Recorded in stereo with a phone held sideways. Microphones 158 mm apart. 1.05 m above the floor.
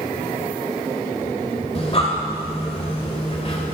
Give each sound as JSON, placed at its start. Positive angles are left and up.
{"t": 1.8, "sound": "breathing", "side_deg": 40, "distance_m": 1.8}